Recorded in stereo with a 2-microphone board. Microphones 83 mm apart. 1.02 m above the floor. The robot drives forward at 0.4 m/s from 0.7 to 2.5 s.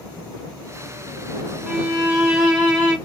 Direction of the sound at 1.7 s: 10° right (ahead or behind).